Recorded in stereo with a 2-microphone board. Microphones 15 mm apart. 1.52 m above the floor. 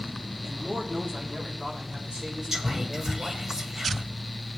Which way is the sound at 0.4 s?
55° right (ahead or behind).